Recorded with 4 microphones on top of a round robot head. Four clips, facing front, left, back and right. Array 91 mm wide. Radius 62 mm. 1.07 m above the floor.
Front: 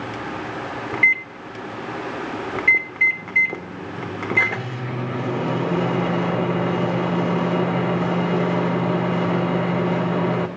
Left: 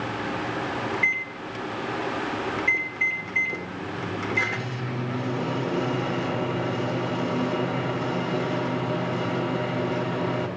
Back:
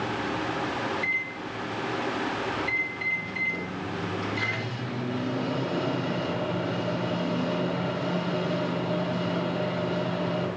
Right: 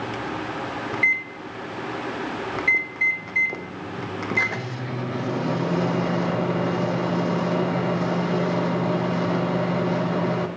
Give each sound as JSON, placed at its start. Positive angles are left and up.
{"t": 0.9, "sound": "a microwave", "azimuth_deg": -25, "distance_m": 0.6}